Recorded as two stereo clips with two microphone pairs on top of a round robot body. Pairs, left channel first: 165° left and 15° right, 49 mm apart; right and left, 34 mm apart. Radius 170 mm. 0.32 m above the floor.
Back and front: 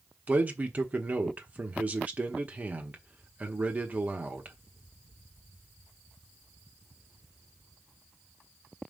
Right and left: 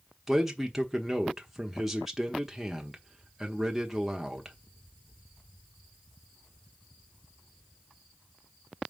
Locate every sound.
0.3 s a man speaking: 25° left, 1.5 m